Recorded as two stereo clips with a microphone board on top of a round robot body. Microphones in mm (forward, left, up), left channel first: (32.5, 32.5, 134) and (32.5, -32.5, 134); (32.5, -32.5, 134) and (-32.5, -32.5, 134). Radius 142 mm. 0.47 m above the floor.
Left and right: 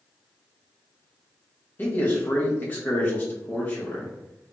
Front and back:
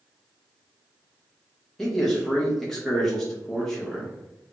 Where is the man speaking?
75° left, 1.4 m.